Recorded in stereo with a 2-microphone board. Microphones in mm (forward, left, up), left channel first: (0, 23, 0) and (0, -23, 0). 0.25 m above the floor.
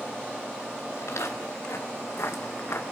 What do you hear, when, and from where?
1.0 s footsteps: 75° left (ahead or behind), 4 m; by 2.8 s 60° left (ahead or behind), 1.7 m